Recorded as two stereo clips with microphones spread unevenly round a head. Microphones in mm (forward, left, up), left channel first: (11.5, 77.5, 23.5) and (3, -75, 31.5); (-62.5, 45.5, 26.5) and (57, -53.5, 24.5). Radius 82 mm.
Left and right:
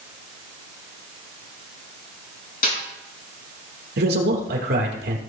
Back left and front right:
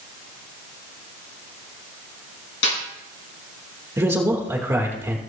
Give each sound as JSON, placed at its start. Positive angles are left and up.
{"t": 2.6, "sound": "a snare drum", "azimuth_deg": 125, "distance_m": 5.5}
{"t": 4.0, "sound": "a man speaking", "azimuth_deg": -115, "distance_m": 3.5}